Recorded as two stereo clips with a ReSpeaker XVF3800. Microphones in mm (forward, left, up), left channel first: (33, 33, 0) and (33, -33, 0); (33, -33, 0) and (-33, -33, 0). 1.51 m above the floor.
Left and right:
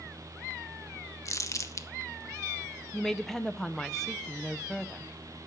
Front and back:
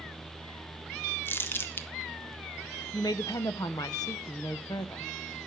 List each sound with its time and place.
1.2 s crumpling: 55° left, 1.0 m
2.9 s a woman speaking: 5° left, 0.8 m